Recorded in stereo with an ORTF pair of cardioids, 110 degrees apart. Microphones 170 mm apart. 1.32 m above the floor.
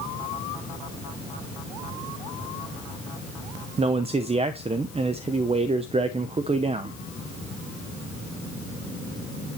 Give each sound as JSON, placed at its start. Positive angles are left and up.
{"t": 3.8, "sound": "a man speaking", "azimuth_deg": -35, "distance_m": 0.7}